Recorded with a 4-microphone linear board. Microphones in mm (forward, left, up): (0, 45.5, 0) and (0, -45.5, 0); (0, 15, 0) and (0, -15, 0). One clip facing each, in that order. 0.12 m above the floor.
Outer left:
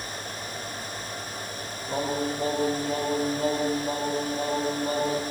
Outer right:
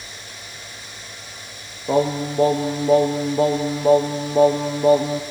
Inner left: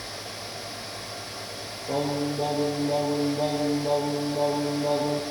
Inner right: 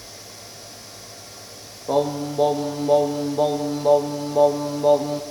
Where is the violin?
I don't hear a violin.